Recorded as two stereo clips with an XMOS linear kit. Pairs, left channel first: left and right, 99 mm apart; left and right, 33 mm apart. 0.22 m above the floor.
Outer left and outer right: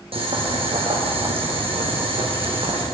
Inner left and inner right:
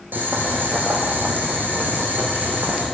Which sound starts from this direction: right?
Boiling, at 0.1 s.